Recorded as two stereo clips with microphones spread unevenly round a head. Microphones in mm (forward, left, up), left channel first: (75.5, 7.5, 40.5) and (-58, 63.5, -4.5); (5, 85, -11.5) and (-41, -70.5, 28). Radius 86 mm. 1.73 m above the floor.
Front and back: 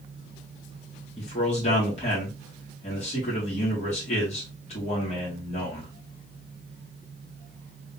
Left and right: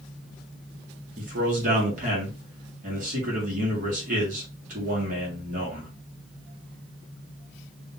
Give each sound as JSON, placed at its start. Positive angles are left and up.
{"t": 1.2, "sound": "a man speaking", "azimuth_deg": -70, "distance_m": 1.9}